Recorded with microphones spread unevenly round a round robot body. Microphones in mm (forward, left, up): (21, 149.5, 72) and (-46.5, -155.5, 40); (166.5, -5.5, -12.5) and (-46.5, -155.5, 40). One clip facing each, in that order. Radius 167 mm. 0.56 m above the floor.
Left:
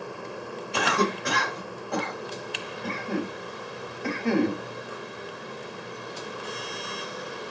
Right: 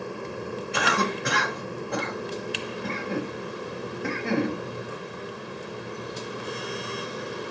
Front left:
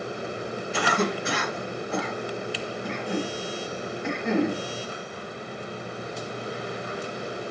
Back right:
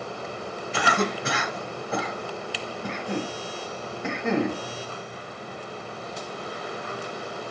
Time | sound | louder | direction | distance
0.7 | a cough | left 3 dB, even | 150° right | 1.2 m